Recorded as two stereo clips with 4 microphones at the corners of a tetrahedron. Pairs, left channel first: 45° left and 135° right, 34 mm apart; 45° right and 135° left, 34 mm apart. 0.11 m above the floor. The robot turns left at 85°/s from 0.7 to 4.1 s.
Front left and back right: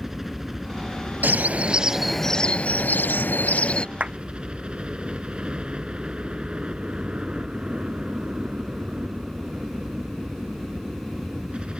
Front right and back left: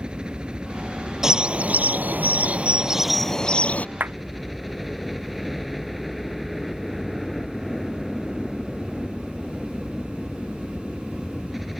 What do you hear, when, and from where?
0.0 s a helicopter: 150° left; by 11.8 s 140° right
1.2 s a bird: 150° right; by 3.9 s 15° right
4.0 s a clap: 170° left; by 4.2 s 160° left